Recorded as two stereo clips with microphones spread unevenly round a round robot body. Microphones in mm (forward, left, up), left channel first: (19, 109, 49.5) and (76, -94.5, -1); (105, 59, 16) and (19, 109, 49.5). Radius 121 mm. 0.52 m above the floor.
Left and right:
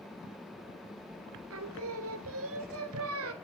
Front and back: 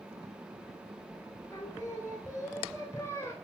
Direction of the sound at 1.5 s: 110° right.